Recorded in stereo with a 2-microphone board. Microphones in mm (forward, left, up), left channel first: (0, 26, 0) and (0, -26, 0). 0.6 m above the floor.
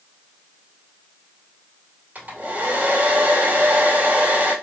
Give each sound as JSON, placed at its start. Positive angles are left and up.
{"t": 2.1, "sound": "a hair dryer", "side_deg": -35, "distance_m": 2.0}